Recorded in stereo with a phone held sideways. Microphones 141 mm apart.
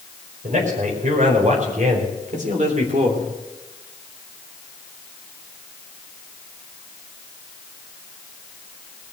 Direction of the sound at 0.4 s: 65° right (ahead or behind).